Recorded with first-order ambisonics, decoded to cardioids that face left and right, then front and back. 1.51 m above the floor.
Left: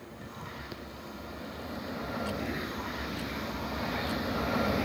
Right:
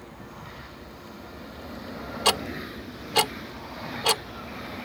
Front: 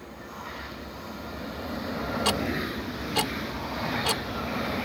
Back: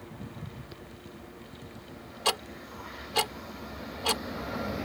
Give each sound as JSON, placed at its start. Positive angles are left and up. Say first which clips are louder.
{"t": 2.2, "sound": "ticking", "louder": "right 10 dB, front 1 dB", "azimuth_deg": -90}